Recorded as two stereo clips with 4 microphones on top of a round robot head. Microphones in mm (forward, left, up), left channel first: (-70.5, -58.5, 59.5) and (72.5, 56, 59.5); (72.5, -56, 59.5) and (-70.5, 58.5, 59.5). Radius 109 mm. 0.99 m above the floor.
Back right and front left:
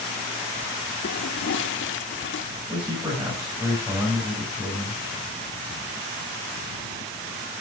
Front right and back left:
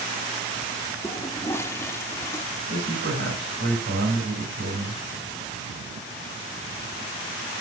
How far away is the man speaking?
About 5 m.